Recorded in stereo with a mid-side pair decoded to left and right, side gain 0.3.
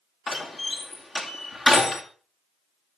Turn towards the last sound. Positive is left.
turn(degrees=60)